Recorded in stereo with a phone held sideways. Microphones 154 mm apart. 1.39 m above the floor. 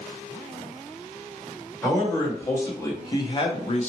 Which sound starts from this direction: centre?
A man speaking, at 1.8 s.